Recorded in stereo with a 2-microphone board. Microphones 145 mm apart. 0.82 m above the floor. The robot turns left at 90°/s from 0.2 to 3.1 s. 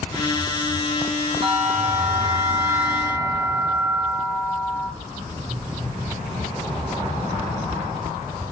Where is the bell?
45° right, 1.3 m; by 4.9 s 165° left, 1.3 m.